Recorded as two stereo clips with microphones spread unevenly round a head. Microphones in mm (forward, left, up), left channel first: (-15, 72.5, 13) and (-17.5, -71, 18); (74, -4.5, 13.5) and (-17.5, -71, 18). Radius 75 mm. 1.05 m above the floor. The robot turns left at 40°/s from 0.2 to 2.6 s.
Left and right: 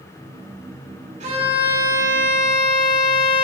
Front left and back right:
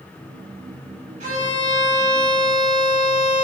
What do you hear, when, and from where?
1.2 s a violin: 130° right, 4.5 m; by 3.5 s 170° left, 4.5 m